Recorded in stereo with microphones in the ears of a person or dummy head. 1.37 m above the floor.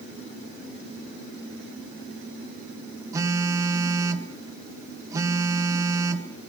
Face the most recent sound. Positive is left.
turn(degrees=-20)  # may be behind; listen again after turning